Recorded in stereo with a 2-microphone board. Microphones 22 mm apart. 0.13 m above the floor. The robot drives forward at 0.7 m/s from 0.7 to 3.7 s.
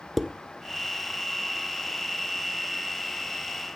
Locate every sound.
0.2 s dishes clattering: 5° left (ahead or behind), 1.3 m